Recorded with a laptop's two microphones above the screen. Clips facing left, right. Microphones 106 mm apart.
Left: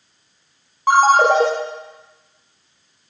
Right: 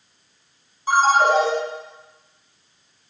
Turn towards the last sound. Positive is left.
turn(degrees=70)  # may be behind; listen again after turning